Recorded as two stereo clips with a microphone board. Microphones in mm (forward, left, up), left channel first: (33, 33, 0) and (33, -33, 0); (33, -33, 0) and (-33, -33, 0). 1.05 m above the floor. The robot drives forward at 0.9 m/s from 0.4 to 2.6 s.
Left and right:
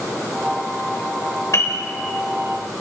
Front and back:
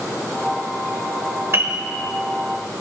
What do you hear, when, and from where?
1.5 s a piano: 130° left, 2.5 m; by 1.8 s 135° left, 2.5 m